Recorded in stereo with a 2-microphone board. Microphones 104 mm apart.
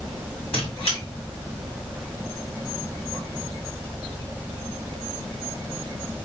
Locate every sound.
0.5 s a squeak: 70° left (ahead or behind), 1.7 m